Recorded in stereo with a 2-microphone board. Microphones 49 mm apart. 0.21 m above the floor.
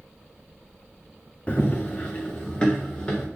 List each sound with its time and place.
1.5 s running footsteps: 30° left (ahead or behind), 0.8 m; by 3.3 s 15° left (ahead or behind), 3 m